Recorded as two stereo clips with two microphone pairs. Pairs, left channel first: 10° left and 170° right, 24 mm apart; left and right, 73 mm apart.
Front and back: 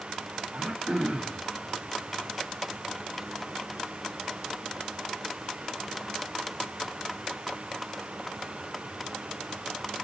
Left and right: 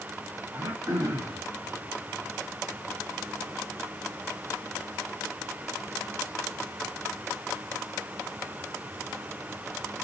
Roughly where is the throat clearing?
Behind right.